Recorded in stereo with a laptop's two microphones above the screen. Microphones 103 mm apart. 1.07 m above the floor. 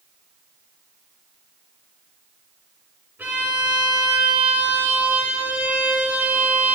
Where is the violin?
15° right (ahead or behind), 2.5 m.